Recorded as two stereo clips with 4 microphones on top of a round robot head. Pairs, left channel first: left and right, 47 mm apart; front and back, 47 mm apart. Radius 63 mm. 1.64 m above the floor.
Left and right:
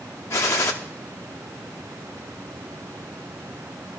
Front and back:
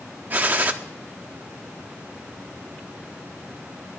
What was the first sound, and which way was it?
A gunshot, 125° left.